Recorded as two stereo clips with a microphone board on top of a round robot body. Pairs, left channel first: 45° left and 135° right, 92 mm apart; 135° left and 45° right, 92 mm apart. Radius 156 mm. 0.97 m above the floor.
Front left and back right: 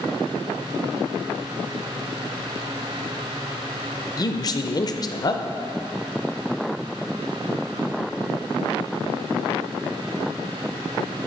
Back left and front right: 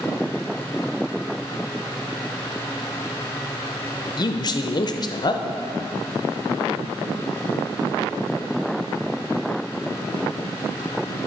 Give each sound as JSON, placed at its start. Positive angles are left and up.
{"t": 4.2, "sound": "a man speaking", "azimuth_deg": 90, "distance_m": 0.6}